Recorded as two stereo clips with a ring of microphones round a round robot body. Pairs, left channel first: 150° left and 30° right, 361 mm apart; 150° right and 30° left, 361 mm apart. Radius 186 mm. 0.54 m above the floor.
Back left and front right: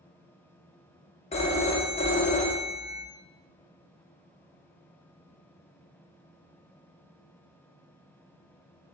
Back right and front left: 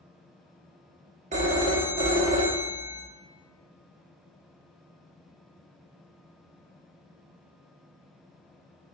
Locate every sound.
1.3 s a phone ringing: 90° left, 0.7 m